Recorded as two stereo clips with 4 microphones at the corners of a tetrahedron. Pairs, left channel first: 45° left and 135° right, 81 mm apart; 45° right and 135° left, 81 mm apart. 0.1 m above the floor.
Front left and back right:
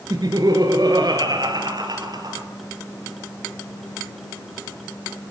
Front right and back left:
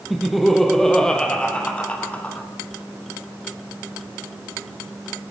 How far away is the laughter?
About 2.5 m.